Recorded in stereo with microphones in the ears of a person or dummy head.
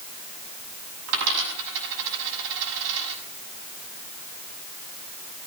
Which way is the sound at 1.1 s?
75° right (ahead or behind).